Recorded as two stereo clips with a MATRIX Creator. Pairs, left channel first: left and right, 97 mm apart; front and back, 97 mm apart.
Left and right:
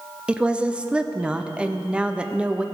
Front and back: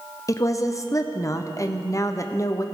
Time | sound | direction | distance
0.3 | a woman speaking | 20° right | 0.5 m